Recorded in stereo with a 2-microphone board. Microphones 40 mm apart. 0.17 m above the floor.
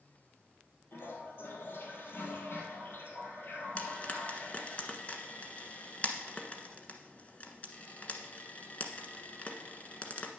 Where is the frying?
35° left (ahead or behind), 1.2 m.